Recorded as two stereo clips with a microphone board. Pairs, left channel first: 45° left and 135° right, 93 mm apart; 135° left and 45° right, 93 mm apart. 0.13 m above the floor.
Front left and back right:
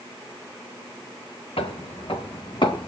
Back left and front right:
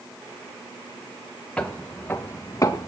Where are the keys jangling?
I don't hear keys jangling.